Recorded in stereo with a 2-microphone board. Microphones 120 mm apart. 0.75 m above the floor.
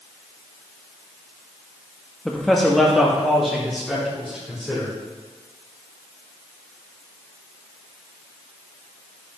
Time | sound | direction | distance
2.2 | a man speaking | 5° left (ahead or behind) | 0.6 m